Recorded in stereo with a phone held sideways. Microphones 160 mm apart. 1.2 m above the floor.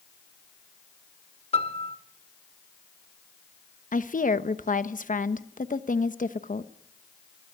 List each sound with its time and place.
1.5 s a piano: 40° left (ahead or behind), 1.8 m
3.9 s a woman speaking: 55° left (ahead or behind), 1.1 m